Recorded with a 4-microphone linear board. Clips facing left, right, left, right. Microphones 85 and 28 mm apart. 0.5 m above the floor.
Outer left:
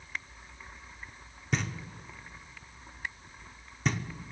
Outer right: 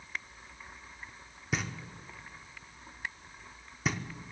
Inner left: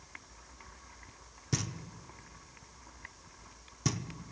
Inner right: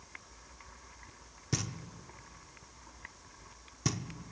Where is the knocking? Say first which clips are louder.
Outer left 2 dB, inner left 1 dB; 5° right (ahead or behind), 0.7 m.